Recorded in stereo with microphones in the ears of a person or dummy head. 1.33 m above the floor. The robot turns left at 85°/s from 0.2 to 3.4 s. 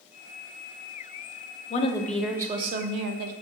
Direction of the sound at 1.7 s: 40° left.